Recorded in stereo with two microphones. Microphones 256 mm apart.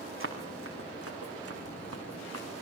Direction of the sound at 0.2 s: 50° right (ahead or behind).